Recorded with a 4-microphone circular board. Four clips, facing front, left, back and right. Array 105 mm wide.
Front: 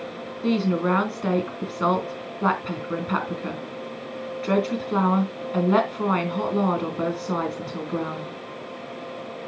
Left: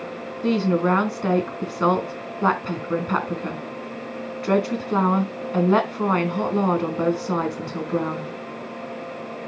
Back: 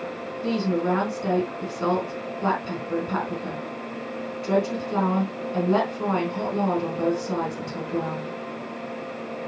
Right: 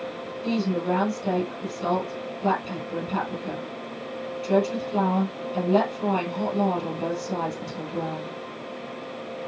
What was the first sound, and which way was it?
A woman speaking, 70° left.